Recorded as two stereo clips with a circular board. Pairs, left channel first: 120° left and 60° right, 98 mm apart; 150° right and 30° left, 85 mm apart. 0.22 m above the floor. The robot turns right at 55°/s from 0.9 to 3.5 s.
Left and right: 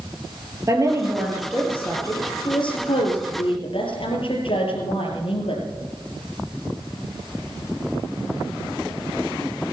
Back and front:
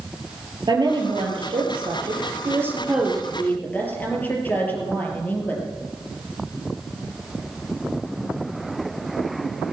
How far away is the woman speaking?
About 4 m.